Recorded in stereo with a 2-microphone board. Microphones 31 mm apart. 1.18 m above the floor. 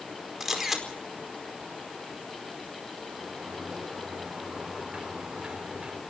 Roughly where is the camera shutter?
Centre.